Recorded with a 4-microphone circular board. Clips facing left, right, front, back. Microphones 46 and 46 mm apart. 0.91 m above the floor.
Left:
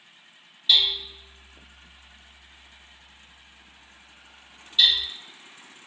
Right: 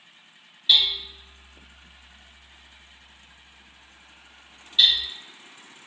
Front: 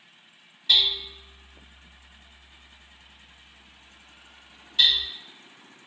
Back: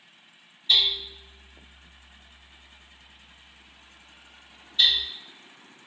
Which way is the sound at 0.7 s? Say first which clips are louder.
Right 1 dB, front 1 dB; 5° right.